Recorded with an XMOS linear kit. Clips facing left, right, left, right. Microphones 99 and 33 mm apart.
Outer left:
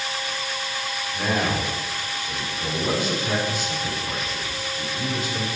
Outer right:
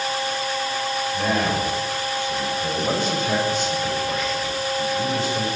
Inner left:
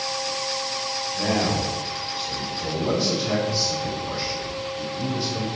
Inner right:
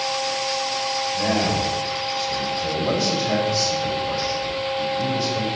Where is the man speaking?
10° left (ahead or behind), 3.5 m.